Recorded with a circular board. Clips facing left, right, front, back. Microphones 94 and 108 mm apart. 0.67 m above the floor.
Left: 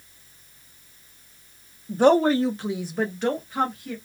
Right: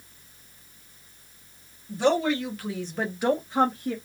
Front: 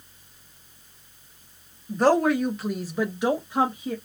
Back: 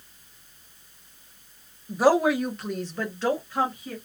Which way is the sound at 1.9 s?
100° left.